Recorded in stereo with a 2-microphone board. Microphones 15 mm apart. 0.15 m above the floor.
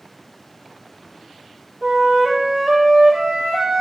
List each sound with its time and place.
1.8 s a flute: 70° right (ahead or behind), 3.5 m